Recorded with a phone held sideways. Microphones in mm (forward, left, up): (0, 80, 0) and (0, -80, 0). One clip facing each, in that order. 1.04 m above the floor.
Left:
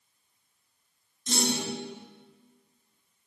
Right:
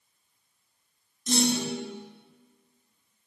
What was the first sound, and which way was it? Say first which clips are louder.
A clunk: right 4 dB; 10° right (ahead or behind).